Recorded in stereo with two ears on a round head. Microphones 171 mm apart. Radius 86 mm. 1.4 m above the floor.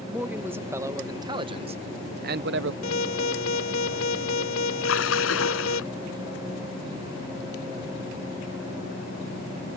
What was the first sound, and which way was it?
A man speaking, 10° right (ahead or behind).